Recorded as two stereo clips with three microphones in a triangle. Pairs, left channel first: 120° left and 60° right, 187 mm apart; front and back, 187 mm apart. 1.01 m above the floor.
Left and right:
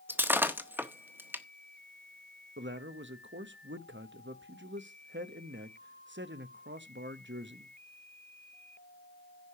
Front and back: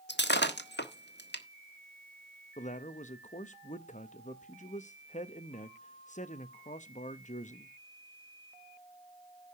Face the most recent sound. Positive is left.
turn(degrees=-50)